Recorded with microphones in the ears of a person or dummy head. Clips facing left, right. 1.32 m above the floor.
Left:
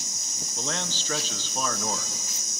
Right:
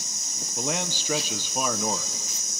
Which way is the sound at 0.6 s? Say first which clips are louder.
Right 4 dB; 5° right (ahead or behind).